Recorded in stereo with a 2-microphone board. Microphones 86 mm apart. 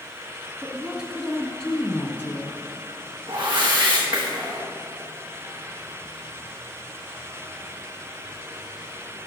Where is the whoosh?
60° right (ahead or behind), 5 m.